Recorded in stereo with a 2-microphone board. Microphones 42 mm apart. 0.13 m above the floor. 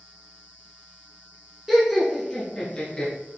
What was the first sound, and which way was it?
Laughter, 5° right (ahead or behind).